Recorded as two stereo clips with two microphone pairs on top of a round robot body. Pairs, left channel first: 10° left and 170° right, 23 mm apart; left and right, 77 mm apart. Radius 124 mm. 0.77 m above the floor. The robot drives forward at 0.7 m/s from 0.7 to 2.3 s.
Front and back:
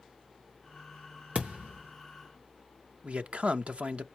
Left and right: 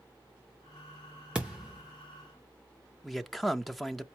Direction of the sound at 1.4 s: 160° right.